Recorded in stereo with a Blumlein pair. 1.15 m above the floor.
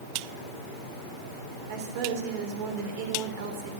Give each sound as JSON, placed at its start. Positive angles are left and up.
{"t": 1.7, "sound": "a woman speaking", "azimuth_deg": -50, "distance_m": 3.0}